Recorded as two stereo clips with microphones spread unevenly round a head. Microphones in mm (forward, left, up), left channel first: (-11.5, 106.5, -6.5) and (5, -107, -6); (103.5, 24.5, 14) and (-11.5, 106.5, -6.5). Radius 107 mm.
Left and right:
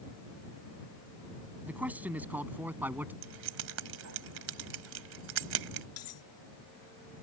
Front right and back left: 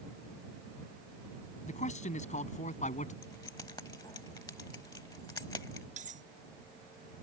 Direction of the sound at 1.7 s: Straight ahead.